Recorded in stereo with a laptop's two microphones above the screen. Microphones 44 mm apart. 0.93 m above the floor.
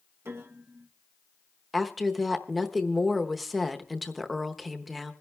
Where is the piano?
70° right (ahead or behind), 1.5 m.